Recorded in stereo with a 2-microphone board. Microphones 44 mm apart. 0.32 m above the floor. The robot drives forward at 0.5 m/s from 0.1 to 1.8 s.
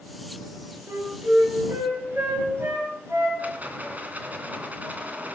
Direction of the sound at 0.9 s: 75° right (ahead or behind).